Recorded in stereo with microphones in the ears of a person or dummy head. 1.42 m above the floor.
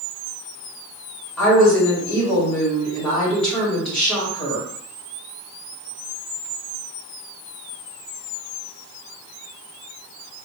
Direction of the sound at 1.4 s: 5° left (ahead or behind).